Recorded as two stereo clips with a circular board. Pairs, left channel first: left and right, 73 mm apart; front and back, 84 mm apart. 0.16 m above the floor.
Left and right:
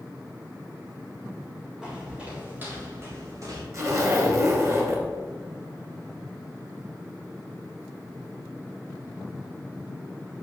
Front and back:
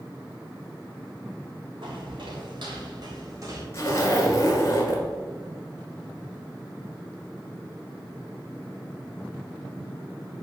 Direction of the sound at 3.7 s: 50° right.